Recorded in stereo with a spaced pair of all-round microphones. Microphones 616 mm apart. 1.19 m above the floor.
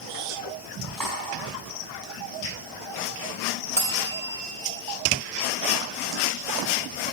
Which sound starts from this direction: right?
Cutlery clinking, at 1.0 s.